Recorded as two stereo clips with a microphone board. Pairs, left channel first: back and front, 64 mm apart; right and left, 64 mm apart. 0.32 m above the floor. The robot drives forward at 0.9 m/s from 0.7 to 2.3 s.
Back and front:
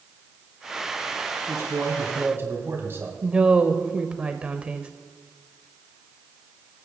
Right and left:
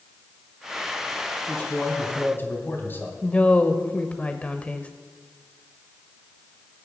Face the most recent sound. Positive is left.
turn(degrees=-50)